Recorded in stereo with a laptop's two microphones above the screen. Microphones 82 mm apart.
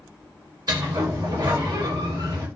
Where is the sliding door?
55° right (ahead or behind), 0.8 m.